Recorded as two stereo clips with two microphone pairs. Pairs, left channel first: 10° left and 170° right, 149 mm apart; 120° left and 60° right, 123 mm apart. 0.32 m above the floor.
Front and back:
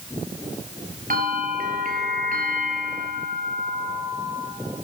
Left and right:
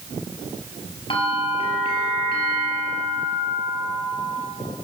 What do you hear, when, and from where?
1.1 s a bell: 165° left, 2.5 m